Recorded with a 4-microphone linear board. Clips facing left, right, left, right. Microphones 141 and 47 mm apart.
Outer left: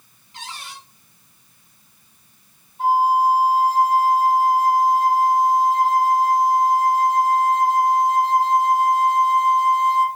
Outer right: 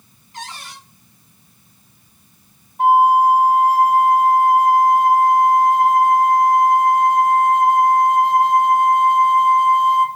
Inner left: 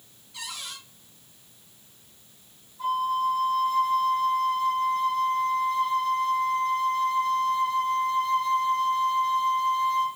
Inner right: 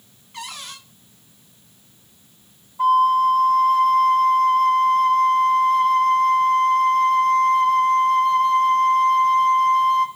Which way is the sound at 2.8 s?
60° right (ahead or behind).